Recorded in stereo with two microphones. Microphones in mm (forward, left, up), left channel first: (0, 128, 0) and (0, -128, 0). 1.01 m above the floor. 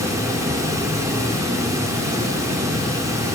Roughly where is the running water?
Centre.